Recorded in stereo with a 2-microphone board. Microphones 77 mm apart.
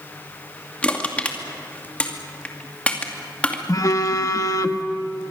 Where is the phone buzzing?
50° left (ahead or behind), 1.2 m.